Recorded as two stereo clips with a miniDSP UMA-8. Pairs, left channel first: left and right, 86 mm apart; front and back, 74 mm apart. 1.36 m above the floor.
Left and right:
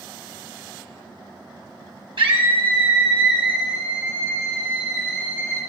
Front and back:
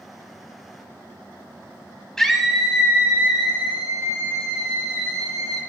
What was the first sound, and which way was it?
A scream, 85° right.